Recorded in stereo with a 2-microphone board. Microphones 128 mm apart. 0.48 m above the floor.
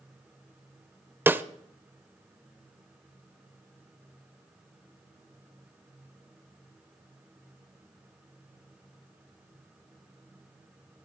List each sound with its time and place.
1.3 s a snare drum: 15° right (ahead or behind), 0.6 m